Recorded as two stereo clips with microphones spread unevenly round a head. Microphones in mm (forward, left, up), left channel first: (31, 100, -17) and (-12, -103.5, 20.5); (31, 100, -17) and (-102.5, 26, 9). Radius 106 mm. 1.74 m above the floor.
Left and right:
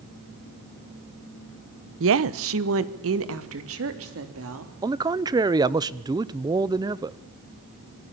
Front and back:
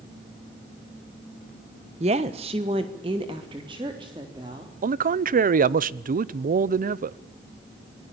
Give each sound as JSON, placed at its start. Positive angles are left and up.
{"t": 2.0, "sound": "a woman speaking", "azimuth_deg": -100, "distance_m": 1.0}
{"t": 4.8, "sound": "a man speaking", "azimuth_deg": -170, "distance_m": 0.8}